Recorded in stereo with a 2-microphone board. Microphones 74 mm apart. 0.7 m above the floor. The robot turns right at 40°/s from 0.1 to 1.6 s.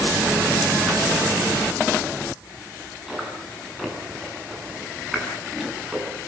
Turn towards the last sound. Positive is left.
turn(degrees=-5)  # may be behind; listen again after turning